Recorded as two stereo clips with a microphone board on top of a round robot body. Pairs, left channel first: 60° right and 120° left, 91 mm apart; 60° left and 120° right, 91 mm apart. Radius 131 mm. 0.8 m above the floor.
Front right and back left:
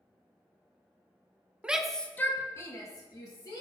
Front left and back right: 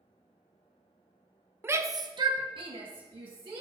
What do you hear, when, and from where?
1.6 s a shout: 170° right, 0.7 m; by 3.6 s 100° right, 1.9 m